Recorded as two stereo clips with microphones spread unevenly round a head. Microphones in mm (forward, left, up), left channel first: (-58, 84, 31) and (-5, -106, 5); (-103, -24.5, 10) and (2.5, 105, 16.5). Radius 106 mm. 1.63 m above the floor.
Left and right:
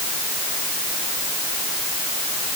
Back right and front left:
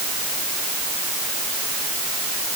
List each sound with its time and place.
Only background noise.